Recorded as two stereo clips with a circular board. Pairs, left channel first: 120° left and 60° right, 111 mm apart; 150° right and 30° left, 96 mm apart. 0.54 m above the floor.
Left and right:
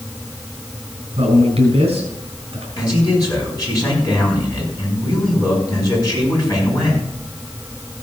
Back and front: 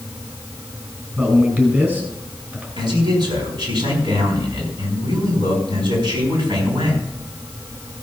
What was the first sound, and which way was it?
A man speaking, 40° right.